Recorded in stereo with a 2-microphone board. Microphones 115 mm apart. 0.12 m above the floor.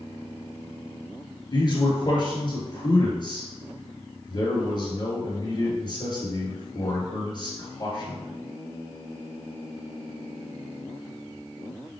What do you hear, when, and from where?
1.5 s a man speaking: 40° left (ahead or behind), 1.8 m